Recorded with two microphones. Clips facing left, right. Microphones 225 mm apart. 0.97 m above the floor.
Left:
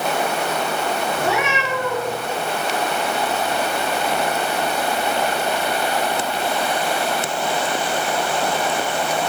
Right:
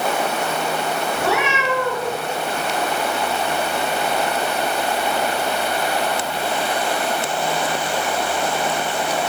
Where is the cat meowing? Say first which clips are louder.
Right 1 dB; 65° right (ahead or behind), 5.5 m.